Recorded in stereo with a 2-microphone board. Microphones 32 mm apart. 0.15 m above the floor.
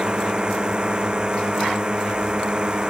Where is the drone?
30° right (ahead or behind).